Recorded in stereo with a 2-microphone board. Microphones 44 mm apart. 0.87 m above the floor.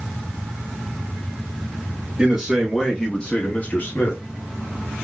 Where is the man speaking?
10° right (ahead or behind), 1.1 m; by 4.2 s 55° left (ahead or behind), 1.3 m.